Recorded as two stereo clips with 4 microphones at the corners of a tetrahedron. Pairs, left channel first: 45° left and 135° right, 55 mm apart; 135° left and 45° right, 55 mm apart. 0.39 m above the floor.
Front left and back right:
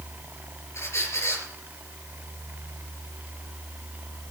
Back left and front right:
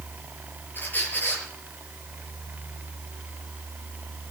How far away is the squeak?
About 5 m.